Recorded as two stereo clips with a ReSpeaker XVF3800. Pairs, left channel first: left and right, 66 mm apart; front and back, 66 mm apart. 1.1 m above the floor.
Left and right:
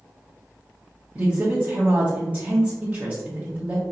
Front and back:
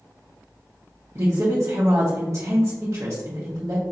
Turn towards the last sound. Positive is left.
turn(degrees=-145)